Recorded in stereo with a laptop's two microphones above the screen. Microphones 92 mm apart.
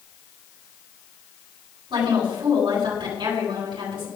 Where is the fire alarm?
I don't hear a fire alarm.